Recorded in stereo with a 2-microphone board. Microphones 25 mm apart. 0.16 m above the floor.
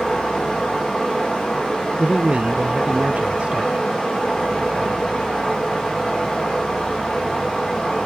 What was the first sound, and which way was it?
Running water, 25° left (ahead or behind).